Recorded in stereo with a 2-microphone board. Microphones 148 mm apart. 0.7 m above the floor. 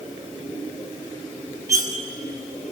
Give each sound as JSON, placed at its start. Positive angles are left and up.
{"t": 1.7, "sound": "cutlery clinking", "side_deg": -25, "distance_m": 2.5}